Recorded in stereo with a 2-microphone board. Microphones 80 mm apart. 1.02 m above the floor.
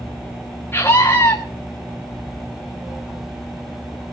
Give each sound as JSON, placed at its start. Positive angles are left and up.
{"t": 0.7, "sound": "a scream", "side_deg": 30, "distance_m": 1.8}